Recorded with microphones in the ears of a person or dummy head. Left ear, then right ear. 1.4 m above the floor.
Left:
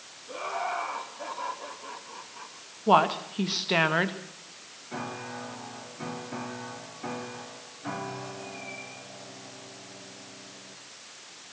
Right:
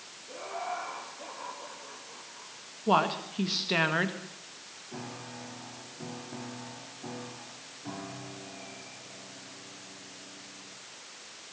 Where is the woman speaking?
15° left (ahead or behind), 1.8 m.